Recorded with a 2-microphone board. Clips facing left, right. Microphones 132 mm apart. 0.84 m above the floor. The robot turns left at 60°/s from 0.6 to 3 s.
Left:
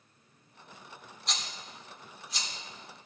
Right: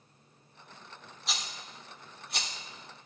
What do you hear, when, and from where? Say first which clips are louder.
1.3 s a rattle: even; centre (ahead or behind), 0.8 m; by 2.5 s 65° right (ahead or behind), 0.8 m